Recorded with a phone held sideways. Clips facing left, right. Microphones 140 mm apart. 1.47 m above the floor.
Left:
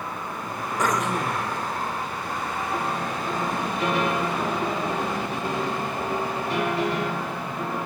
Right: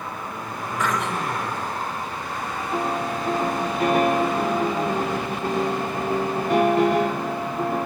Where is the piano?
55° right (ahead or behind), 4.5 m.